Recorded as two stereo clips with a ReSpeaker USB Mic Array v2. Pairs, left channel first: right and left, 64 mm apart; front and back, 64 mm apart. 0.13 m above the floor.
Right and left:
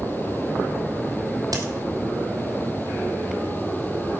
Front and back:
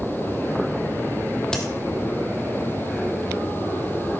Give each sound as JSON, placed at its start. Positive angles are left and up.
{"t": 1.5, "sound": "a crack", "azimuth_deg": 80, "distance_m": 2.0}